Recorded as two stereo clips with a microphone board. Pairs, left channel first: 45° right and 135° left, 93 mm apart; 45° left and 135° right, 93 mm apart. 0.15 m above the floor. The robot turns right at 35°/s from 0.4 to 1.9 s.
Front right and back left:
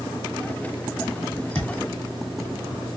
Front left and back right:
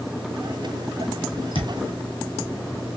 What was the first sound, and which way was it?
A thud, 35° left.